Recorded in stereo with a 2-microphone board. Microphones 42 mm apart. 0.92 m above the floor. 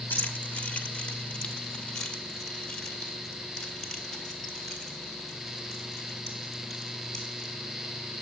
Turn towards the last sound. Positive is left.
turn(degrees=5)  # may be behind; listen again after turning